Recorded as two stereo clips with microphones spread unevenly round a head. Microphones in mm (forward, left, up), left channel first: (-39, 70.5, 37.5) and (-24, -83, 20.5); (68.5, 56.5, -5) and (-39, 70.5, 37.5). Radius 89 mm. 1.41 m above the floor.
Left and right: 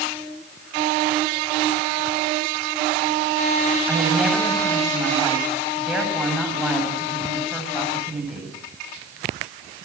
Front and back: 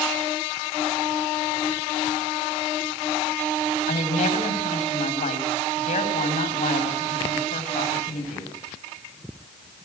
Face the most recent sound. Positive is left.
turn(degrees=5)